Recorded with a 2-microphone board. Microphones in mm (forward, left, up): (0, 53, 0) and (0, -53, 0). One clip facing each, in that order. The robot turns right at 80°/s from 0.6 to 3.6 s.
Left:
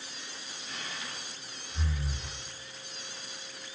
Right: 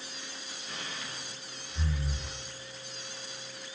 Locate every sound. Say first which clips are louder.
0.7 s breathing: even; 60° right (ahead or behind), 1.5 m; by 2.3 s 70° left (ahead or behind), 1.5 m